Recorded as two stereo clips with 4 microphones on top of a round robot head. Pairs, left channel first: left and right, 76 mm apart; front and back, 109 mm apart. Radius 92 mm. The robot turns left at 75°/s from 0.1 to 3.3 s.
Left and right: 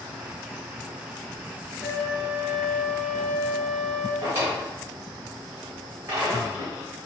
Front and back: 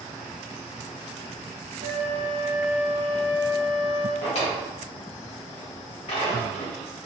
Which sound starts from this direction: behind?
A flute, at 1.8 s.